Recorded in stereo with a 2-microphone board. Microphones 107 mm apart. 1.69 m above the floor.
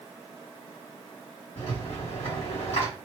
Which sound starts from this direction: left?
A rattle, at 1.6 s.